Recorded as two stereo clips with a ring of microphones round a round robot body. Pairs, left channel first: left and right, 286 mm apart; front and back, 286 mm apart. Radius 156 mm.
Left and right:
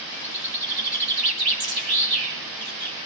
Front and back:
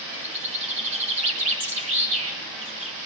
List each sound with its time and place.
0.1 s a bird: 110° right, 8.5 m